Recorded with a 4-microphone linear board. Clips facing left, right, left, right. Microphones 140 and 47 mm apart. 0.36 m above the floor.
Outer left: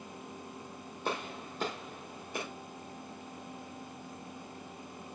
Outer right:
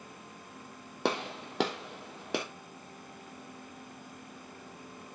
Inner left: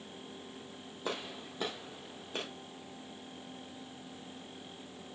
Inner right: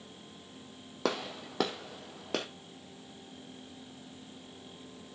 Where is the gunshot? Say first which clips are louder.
Outer right 5 dB, inner right 6 dB; 85° right, 2.5 m.